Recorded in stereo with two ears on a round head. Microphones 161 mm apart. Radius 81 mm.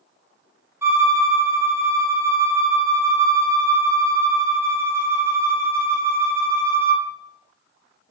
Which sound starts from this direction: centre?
A violin, at 0.8 s.